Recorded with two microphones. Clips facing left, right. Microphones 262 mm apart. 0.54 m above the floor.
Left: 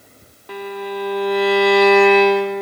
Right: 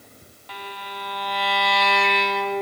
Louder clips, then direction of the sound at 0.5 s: Left 14 dB; 55° left (ahead or behind).